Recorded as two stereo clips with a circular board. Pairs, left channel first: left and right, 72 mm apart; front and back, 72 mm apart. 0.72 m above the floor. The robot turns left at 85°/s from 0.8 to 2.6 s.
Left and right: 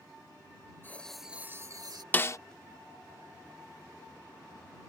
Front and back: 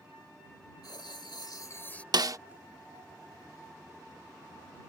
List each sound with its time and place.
0.8 s writing: 30° left; by 2.0 s 75° right
2.1 s a snare drum: 155° left; by 2.4 s 135° left